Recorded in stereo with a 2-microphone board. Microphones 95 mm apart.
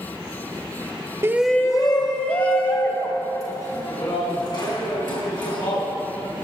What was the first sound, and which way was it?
A shout, 25° right (ahead or behind).